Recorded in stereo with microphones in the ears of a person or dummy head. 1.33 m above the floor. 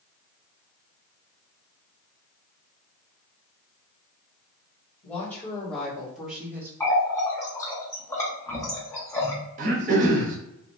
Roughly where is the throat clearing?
Right.